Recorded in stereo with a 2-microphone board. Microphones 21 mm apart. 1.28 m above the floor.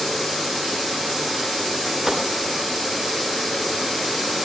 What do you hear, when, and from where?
2.1 s a gunshot: 30° right (ahead or behind), 9 m